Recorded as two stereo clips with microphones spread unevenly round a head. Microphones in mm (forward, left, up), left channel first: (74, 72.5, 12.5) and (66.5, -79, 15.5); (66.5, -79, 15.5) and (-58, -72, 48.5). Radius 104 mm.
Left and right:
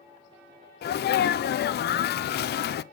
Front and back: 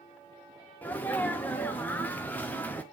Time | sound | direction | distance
0.8 | a sneeze | 70° left | 0.5 m